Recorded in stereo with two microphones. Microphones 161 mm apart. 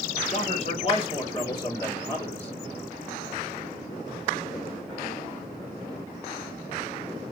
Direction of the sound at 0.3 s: 45° left (ahead or behind).